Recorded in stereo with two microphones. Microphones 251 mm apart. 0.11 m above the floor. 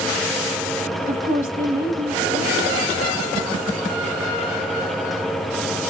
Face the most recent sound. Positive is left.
turn(degrees=-35)  # may be behind; listen again after turning